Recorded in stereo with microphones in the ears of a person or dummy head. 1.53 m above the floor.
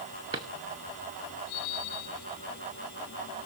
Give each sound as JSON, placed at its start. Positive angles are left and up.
{"t": 0.3, "sound": "a drawer", "side_deg": -25, "distance_m": 0.9}